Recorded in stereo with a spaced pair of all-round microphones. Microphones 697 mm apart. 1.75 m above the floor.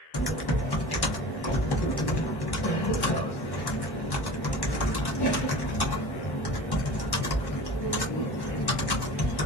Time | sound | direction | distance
0.1 | typing on a keyboard | 35° left (ahead or behind) | 0.9 m